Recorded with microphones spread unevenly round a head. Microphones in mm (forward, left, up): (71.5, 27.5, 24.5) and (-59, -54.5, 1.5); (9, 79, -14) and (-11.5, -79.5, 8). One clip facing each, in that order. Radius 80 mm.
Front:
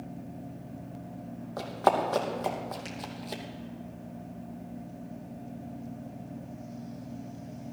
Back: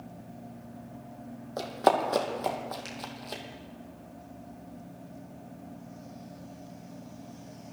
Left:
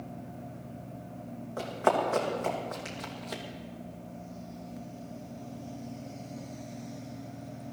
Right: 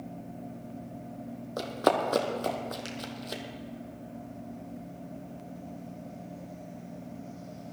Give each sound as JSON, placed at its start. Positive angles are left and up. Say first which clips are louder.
{"t": 1.6, "sound": "running footsteps", "louder": "back 1 dB, right 1 dB", "azimuth_deg": -80, "distance_m": 2.5}